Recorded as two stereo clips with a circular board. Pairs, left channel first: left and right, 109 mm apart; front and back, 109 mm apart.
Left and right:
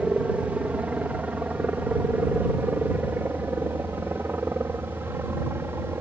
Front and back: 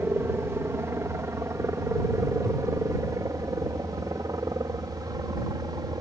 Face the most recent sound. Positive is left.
turn(degrees=-150)